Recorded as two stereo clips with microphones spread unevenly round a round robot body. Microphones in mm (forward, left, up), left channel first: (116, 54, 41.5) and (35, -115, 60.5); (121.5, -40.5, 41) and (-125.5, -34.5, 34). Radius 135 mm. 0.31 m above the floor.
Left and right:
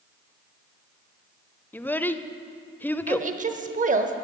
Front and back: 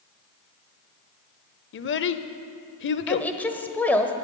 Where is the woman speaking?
85° right, 1.1 m.